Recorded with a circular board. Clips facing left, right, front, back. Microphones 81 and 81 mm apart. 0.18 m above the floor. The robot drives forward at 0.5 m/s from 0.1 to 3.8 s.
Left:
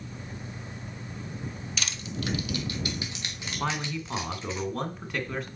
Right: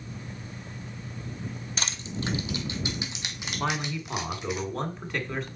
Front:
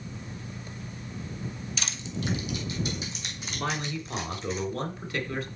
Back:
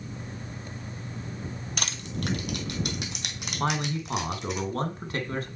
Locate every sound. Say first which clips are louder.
1.8 s crushing: right 1 dB, back 2 dB; 145° right, 0.9 m; by 4.6 s 165° right, 1.8 m
3.6 s a man speaking: right 1 dB, back 4 dB; straight behind, 1.7 m